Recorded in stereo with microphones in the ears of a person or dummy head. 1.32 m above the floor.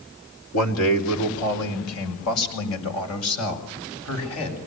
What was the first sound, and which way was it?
A man speaking, 90° left.